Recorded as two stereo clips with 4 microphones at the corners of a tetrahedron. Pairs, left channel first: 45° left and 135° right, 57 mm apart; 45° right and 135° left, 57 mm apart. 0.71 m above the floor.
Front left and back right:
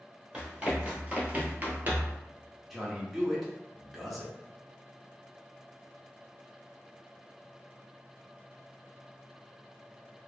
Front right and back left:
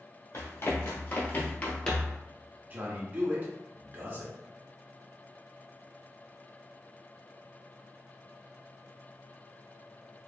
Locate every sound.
0.3 s running footsteps: 65° right, 1.2 m; by 2.2 s 125° right, 0.8 m
2.7 s a man speaking: 135° left, 0.8 m